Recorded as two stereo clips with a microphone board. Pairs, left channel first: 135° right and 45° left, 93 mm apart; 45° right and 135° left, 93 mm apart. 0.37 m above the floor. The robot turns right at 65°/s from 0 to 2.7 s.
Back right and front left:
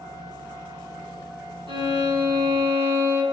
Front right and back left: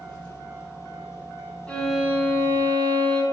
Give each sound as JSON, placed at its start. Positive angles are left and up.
{"t": 1.7, "sound": "a violin", "azimuth_deg": 30, "distance_m": 3.0}